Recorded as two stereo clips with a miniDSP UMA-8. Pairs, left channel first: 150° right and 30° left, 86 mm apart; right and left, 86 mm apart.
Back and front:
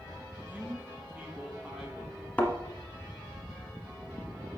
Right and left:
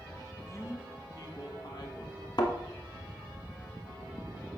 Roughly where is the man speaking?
Ahead right.